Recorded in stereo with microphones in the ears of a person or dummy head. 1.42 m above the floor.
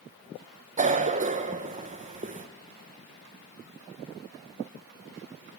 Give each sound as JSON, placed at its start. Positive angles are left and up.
{"t": 0.8, "sound": "a cough", "side_deg": -30, "distance_m": 1.3}